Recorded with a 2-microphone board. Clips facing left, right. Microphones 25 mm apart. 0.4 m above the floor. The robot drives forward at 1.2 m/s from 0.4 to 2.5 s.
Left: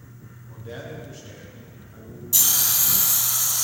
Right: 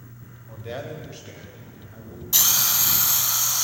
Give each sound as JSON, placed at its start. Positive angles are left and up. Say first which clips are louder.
{"t": 0.5, "sound": "a man speaking", "louder": "right 3 dB", "side_deg": -55, "distance_m": 1.7}
{"t": 2.3, "sound": "a hiss", "louder": "right 1 dB", "side_deg": -30, "distance_m": 1.0}